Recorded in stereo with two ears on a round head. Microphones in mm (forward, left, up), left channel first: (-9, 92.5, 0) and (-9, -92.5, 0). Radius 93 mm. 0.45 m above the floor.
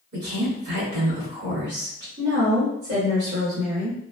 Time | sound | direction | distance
0.1 | a woman speaking | 60° right (ahead or behind) | 1.8 m
2.2 | a woman speaking | 50° right (ahead or behind) | 1.9 m